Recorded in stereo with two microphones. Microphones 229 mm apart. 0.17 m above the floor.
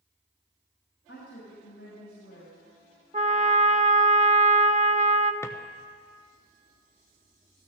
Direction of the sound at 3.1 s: 30° right (ahead or behind).